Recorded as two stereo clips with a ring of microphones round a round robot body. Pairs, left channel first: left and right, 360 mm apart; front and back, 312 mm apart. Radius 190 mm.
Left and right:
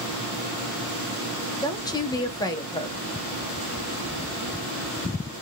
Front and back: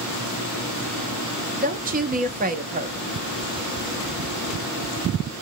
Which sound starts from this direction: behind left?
A woman speaking, at 1.6 s.